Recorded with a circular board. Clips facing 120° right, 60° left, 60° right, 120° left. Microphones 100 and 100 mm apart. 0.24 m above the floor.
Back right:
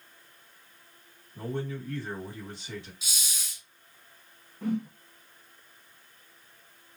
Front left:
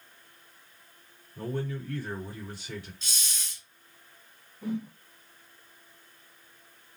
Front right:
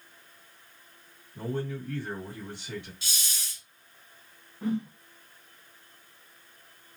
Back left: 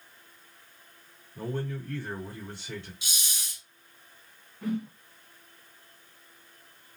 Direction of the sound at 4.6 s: 120° right.